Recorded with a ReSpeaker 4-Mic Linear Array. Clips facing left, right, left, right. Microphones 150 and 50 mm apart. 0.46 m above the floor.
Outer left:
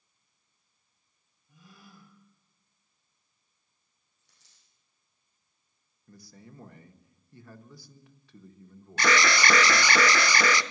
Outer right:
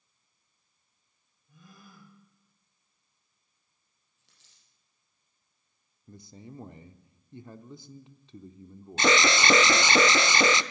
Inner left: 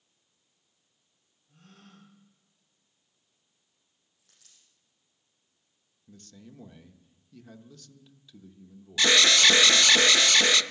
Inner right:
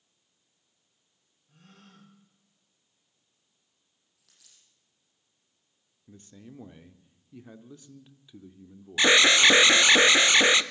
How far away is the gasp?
About 10 m.